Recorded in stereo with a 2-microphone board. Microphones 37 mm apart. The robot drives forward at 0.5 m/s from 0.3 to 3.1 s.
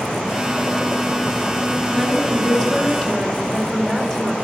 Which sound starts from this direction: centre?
A woman speaking, at 1.9 s.